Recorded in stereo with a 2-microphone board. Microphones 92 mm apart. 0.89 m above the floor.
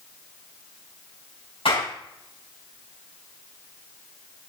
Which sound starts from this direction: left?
A clap, at 1.6 s.